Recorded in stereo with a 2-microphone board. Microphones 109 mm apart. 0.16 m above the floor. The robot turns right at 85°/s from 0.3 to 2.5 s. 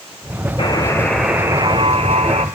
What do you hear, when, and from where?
0.6 s a buzzer: 130° left, 1.7 m; by 2.5 s 75° right, 1.7 m